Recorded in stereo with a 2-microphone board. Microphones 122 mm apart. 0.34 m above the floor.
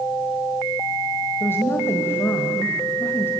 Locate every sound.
1.4 s a woman speaking: 20° left (ahead or behind), 1.9 m